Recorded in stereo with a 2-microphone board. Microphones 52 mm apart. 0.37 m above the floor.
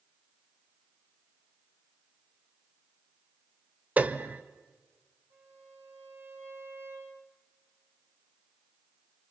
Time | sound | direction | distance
4.0 | a piano | 35° right (ahead or behind) | 1.0 m
5.3 | a violin | 55° right (ahead or behind) | 8 m